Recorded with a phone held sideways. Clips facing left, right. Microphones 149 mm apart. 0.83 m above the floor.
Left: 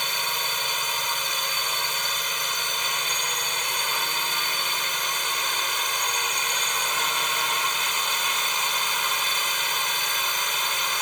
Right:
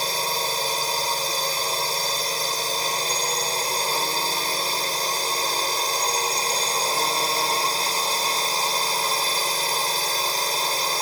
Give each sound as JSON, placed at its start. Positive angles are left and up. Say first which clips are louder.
{"t": 0.0, "sound": "a drone", "louder": "right 5 dB", "side_deg": -35}